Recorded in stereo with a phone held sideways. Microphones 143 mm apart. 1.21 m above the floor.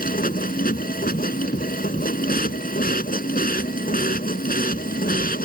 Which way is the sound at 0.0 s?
90° left.